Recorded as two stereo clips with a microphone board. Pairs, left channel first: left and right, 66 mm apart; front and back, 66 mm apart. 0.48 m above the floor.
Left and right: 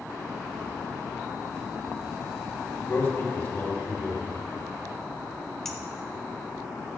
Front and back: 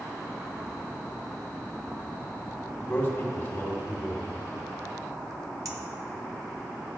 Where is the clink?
170° left, 1.1 m.